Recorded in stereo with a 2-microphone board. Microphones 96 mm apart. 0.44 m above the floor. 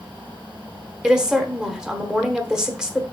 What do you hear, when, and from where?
1.0 s a woman speaking: 5° right (ahead or behind), 0.9 m